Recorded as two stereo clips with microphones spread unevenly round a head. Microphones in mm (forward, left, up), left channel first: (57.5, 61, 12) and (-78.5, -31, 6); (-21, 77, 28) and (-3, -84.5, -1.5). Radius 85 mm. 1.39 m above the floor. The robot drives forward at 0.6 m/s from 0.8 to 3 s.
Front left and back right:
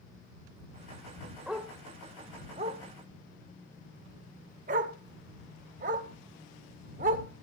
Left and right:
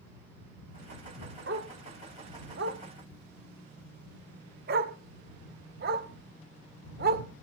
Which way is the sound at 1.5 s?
60° right.